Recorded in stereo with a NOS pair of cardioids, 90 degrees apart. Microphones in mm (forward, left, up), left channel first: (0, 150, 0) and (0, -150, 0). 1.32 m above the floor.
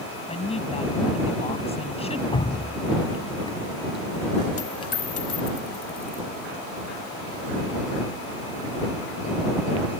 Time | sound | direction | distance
0.3 | a woman speaking | 20° left | ?
2.3 | dripping | 15° left | ?
4.6 | a dropped coin | 50° left | ?